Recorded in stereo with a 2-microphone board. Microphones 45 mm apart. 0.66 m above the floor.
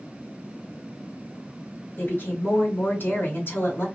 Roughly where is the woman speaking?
Left.